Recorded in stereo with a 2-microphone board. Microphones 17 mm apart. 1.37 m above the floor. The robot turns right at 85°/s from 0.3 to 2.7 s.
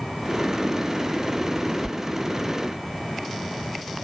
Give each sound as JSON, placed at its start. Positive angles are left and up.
{"t": 1.8, "sound": "a sliding door", "side_deg": -15, "distance_m": 0.5}